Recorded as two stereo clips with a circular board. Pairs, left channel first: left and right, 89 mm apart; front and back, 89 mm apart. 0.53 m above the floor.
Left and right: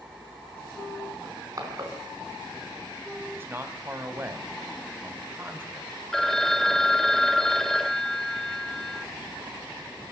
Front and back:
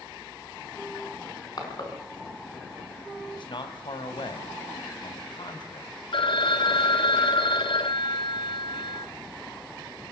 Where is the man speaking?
25° right, 3 m.